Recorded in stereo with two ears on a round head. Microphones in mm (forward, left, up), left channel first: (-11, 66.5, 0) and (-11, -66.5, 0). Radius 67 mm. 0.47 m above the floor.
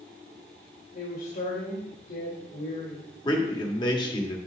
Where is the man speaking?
30° left (ahead or behind), 1.4 m.